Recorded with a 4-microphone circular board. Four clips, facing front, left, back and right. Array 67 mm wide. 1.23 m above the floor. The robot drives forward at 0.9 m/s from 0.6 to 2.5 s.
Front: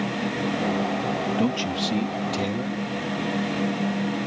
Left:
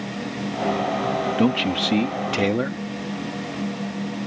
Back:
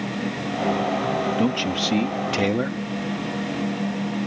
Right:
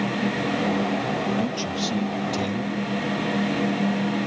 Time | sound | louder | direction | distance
1.4 | a man speaking | left 5 dB, back 2 dB | 95° left | ?